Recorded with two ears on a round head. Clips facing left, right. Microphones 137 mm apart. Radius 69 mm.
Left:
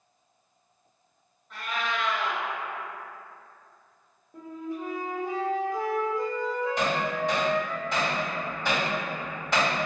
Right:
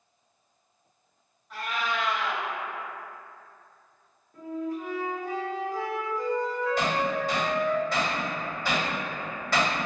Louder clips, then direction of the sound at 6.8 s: Right 1 dB; 15° left (ahead or behind).